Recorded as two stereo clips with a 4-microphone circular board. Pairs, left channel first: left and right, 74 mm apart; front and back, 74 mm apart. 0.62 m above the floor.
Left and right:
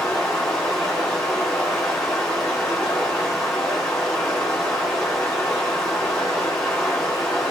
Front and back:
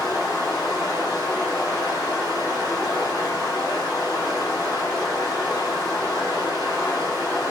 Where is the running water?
5° left, 1.5 m.